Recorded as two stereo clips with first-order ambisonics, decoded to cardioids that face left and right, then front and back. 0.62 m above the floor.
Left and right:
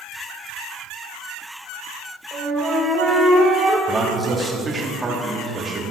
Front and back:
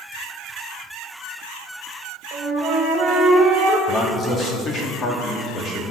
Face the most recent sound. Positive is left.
turn(degrees=-25)